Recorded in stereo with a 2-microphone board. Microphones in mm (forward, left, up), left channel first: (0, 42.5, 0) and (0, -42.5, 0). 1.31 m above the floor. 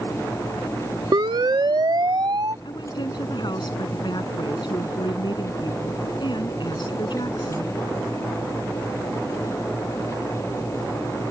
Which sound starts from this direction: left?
A woman speaking, at 2.6 s.